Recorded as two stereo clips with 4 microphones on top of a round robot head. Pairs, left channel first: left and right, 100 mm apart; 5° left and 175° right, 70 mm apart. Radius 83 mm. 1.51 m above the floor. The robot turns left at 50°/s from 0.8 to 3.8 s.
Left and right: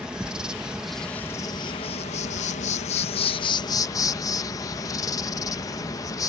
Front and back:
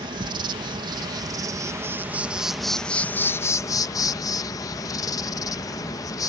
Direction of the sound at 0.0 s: 175° right.